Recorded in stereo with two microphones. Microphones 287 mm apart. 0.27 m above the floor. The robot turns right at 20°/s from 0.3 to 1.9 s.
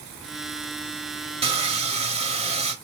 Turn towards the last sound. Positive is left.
turn(degrees=-20)  # may be behind; listen again after turning